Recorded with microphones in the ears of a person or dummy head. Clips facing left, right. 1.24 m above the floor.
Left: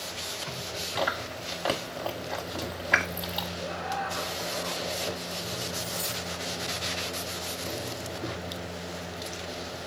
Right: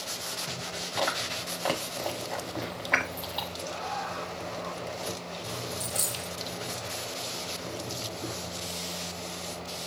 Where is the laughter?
25° left (ahead or behind), 1.6 m.